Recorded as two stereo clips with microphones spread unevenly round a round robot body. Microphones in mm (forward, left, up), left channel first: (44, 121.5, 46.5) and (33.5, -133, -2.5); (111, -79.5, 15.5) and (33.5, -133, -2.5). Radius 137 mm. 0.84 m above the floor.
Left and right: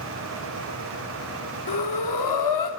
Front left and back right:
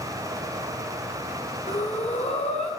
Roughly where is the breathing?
Left.